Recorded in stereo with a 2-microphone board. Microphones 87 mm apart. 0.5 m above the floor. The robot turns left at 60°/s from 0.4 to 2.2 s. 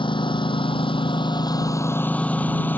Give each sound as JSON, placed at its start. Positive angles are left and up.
{"t": 0.0, "sound": "a lawn mower", "side_deg": 75}